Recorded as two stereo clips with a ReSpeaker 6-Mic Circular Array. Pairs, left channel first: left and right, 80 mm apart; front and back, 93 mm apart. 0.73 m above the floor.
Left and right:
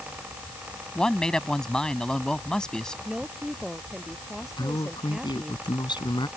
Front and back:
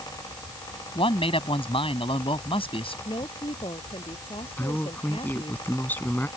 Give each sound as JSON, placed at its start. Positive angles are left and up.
{"t": 0.9, "sound": "a man speaking", "azimuth_deg": 10}
{"t": 3.0, "sound": "a woman speaking", "azimuth_deg": -5}
{"t": 4.6, "sound": "a man speaking", "azimuth_deg": 70}